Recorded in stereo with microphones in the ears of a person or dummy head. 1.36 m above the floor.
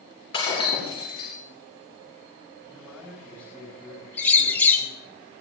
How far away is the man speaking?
About 9.5 m.